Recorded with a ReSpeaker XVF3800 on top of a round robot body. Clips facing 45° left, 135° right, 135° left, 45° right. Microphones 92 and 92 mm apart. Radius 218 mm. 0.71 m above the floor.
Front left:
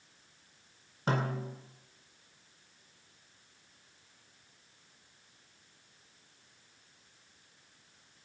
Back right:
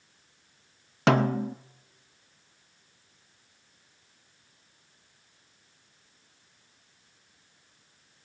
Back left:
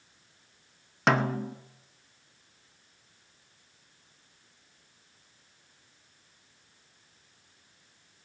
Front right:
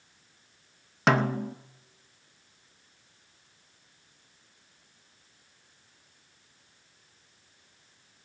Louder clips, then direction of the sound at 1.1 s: Back right 10 dB, front right 1 dB; 135° right.